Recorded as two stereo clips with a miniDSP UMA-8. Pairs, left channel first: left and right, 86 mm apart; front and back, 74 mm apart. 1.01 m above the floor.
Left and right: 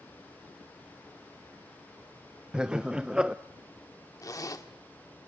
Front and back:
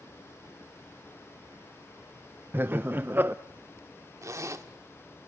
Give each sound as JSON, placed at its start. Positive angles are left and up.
{"t": 2.5, "sound": "laughter", "azimuth_deg": -160, "distance_m": 0.5}
{"t": 4.2, "sound": "a zipper", "azimuth_deg": 135, "distance_m": 1.3}